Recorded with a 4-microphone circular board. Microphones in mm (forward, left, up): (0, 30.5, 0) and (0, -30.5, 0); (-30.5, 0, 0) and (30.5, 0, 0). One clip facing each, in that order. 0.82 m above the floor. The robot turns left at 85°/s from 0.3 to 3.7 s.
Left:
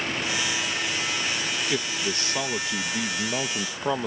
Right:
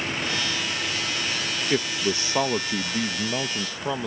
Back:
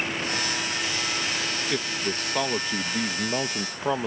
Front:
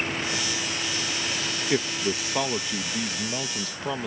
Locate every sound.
1.7 s a man speaking: 40° right; by 4.1 s 150° left